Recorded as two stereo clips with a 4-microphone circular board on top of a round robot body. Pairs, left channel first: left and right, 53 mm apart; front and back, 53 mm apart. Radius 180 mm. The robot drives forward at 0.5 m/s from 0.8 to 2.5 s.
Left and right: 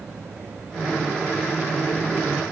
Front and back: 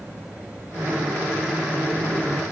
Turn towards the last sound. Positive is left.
No sound to turn to.